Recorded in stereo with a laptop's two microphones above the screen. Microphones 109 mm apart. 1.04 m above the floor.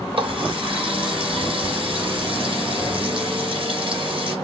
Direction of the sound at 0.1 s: 60° right (ahead or behind).